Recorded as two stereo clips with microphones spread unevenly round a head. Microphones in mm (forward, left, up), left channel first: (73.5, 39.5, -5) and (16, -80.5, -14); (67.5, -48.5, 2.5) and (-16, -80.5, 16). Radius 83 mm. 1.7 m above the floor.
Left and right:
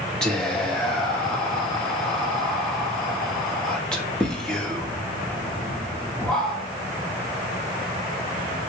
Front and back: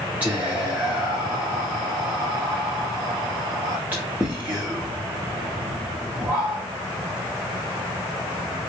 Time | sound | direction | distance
0.2 | whispering | 140° left | 0.6 m